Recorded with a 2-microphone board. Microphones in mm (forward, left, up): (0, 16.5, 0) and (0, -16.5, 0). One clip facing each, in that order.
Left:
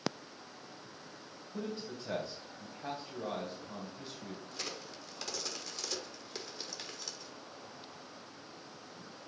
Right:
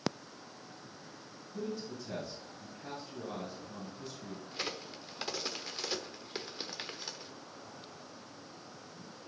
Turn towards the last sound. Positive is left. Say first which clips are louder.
# right 6 dB
turn(degrees=-25)  # may be behind; listen again after turning